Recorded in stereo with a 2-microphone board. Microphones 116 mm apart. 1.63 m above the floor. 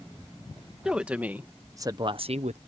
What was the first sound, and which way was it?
A woman speaking, 5° right (ahead or behind).